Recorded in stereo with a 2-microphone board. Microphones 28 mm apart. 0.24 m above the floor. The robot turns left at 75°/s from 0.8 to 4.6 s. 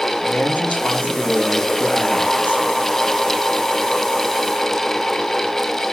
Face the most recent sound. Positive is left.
turn(degrees=145)